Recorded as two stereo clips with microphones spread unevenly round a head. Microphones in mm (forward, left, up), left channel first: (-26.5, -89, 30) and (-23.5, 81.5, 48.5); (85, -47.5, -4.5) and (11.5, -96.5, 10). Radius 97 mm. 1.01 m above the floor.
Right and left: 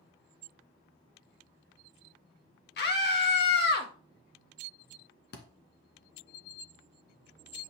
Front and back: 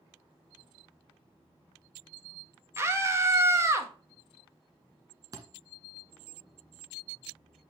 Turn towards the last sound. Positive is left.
turn(degrees=-115)